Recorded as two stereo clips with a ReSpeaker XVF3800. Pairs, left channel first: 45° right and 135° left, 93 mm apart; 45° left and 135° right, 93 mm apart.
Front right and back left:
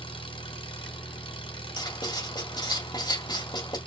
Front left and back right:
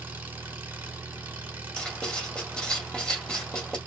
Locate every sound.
0.0 s an engine running: 65° right, 1.7 m
1.8 s writing: 35° right, 2 m